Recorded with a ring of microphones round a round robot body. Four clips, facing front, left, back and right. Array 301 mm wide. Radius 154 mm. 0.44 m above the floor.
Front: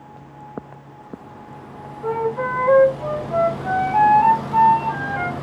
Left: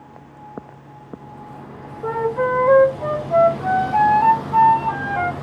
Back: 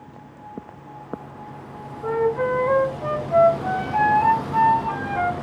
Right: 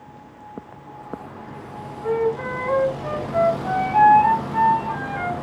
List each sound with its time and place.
2.0 s a flute: 90° left, 1.4 m